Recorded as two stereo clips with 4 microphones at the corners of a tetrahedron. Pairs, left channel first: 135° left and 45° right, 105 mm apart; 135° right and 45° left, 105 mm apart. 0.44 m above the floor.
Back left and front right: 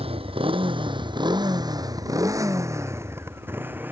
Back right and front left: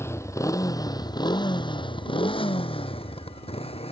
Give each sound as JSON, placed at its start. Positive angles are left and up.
{"t": 0.0, "sound": "a motorcycle", "azimuth_deg": -70}